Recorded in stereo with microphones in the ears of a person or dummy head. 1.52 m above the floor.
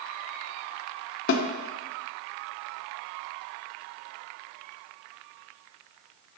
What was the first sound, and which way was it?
A snare drum, 75° left (ahead or behind).